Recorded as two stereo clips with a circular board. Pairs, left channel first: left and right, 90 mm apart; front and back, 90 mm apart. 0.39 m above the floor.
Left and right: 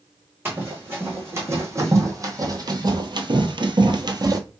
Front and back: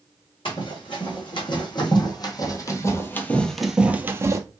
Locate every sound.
0.5 s running footsteps: 25° right, 1.9 m; by 4.4 s 130° right, 0.7 m